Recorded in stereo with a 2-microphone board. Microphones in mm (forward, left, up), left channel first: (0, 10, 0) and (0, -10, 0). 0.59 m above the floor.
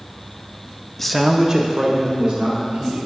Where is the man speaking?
15° left (ahead or behind), 0.6 m; by 3.0 s 60° right (ahead or behind), 2.5 m.